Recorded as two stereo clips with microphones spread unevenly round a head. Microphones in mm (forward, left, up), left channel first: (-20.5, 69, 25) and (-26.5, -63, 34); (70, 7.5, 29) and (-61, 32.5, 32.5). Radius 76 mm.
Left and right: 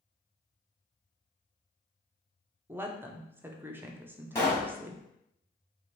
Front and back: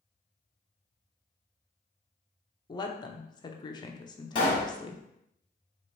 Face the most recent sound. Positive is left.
turn(degrees=20)